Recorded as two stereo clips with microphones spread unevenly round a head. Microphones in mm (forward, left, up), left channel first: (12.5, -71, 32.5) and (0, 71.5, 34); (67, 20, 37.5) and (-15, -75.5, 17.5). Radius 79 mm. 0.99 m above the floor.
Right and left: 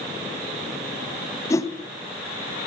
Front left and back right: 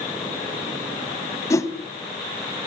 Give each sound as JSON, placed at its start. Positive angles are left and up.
{"t": 1.5, "sound": "a whoosh", "azimuth_deg": -15, "distance_m": 3.0}